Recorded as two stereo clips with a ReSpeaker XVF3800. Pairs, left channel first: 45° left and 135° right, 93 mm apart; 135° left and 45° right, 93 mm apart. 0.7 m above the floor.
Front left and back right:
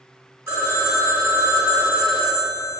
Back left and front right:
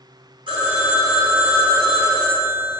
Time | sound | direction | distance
0.5 | a phone ringing | 70° right | 1.0 m